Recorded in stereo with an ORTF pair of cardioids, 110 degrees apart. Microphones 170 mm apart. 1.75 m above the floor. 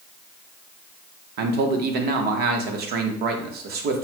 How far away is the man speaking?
About 1.1 m.